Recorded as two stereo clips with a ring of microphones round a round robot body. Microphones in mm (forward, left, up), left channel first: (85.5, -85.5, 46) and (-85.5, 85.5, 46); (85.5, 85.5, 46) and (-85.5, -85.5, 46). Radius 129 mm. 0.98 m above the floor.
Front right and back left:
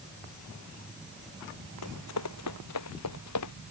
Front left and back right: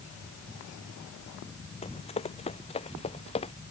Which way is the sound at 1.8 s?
20° right.